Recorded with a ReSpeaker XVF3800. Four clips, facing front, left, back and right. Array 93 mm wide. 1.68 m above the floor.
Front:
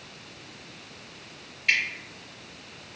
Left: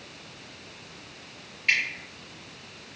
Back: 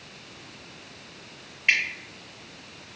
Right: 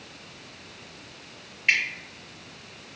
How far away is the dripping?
About 1.4 m.